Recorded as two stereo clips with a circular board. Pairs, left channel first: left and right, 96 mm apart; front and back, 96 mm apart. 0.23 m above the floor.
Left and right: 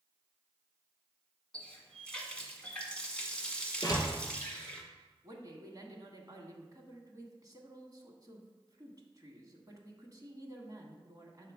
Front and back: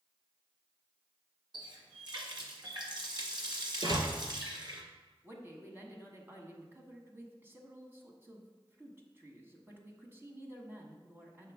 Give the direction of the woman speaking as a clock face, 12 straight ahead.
4 o'clock.